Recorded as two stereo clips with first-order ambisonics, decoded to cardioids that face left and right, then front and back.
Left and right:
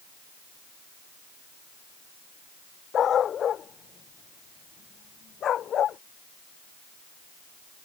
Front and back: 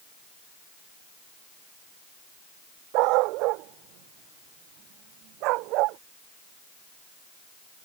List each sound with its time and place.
2.9 s a dog barking: 155° left; by 6.0 s 150° left